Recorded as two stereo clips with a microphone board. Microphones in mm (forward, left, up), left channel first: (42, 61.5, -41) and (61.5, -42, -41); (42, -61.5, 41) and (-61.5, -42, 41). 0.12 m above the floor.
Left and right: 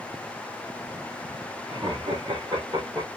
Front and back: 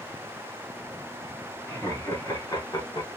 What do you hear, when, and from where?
1.7 s laughter: 75° right, 3 m; by 3.1 s 45° right, 1.9 m